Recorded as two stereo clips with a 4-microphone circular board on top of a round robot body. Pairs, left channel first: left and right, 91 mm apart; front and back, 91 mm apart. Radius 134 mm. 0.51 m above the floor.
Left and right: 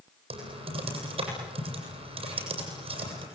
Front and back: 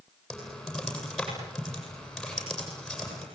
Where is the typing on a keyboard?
90° right, 8 m.